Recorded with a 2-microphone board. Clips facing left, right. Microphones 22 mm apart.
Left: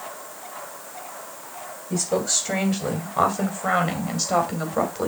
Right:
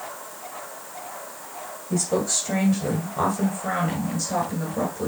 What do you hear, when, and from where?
1.9 s a woman speaking: 15° left (ahead or behind), 3 m; by 5.1 s 55° left (ahead or behind), 2.5 m